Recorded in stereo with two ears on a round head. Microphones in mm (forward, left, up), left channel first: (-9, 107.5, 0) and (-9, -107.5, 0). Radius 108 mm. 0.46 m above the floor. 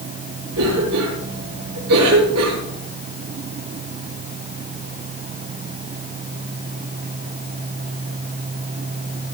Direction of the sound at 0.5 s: 80° right.